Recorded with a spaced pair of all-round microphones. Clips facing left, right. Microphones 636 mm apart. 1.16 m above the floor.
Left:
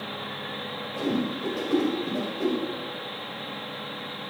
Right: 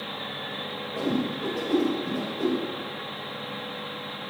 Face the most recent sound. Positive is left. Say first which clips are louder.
# even
turn(degrees=5)  # may be behind; listen again after turning